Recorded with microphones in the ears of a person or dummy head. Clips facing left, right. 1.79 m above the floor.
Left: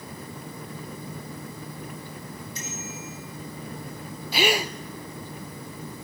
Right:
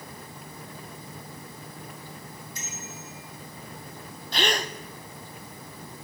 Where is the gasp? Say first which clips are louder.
Left 4 dB; 10° left (ahead or behind), 0.7 m.